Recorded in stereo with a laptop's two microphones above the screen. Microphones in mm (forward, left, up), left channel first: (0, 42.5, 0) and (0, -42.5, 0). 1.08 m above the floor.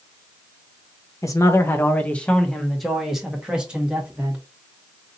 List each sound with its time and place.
1.2 s a man speaking: 40° left (ahead or behind), 0.9 m; by 4.4 s 15° right (ahead or behind), 2 m